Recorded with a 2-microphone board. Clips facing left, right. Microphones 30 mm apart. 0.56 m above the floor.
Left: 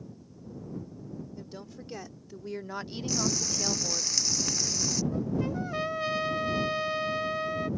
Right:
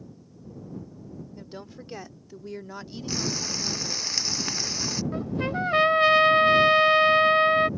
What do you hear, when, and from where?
1.4 s a woman speaking: 25° right (ahead or behind); by 4.1 s 50° left (ahead or behind)
3.1 s frying: 30° right (ahead or behind)
5.1 s a trumpet: 55° right (ahead or behind)